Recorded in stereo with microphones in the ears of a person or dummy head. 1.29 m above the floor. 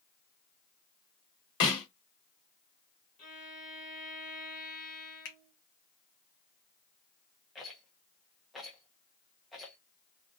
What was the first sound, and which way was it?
A snare drum, 25° left (ahead or behind).